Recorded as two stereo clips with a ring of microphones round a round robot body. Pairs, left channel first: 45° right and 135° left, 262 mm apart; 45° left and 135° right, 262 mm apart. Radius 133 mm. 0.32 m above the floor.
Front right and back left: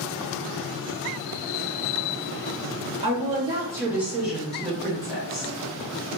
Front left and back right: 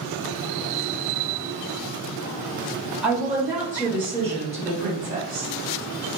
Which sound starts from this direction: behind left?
A woman speaking, at 3.0 s.